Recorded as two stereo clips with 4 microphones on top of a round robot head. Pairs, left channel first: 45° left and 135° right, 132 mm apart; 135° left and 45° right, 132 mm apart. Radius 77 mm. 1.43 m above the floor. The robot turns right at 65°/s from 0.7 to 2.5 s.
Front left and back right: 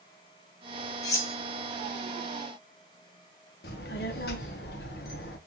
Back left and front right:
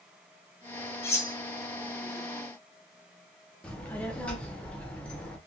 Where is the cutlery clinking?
80° left, 0.5 m; by 1.4 s 100° left, 0.5 m.